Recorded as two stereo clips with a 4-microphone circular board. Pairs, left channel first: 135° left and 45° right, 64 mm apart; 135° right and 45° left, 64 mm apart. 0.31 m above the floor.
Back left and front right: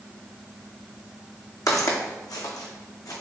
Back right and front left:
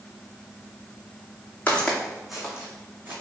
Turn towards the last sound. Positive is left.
turn(degrees=105)